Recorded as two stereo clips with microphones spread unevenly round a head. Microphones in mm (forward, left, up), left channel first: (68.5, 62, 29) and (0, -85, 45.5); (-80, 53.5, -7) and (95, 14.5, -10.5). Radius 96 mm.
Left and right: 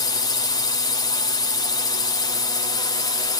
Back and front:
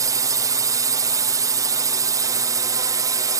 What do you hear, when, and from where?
0.0 s a drone: 40° left